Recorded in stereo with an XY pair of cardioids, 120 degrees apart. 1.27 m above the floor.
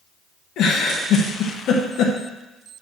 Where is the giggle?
65° left, 1.2 m.